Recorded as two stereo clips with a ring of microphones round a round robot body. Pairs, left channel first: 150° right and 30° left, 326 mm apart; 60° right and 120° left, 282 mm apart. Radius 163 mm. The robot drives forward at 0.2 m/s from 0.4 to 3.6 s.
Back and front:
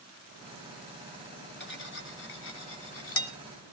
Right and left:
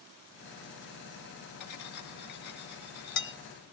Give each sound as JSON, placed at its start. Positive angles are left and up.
{"t": 1.6, "sound": "cutlery clinking", "azimuth_deg": -90, "distance_m": 1.8}